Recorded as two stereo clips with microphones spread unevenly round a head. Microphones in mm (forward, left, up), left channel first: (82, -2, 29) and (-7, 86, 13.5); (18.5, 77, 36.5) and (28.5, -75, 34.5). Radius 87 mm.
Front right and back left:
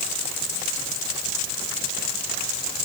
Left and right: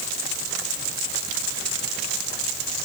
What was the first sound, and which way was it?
Only background noise.